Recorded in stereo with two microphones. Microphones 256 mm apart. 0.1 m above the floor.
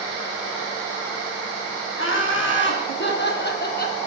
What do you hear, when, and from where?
2.0 s laughter: 50° left (ahead or behind), 5.5 m; by 4.0 s 35° left (ahead or behind), 3.5 m